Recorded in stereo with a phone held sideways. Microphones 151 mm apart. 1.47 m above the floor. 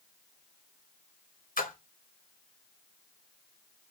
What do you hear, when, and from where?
1.6 s a splash: 65° left (ahead or behind), 0.9 m